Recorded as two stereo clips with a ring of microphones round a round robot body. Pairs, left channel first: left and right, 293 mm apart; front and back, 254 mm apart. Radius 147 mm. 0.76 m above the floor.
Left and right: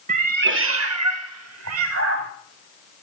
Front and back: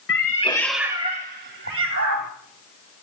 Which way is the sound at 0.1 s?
30° right.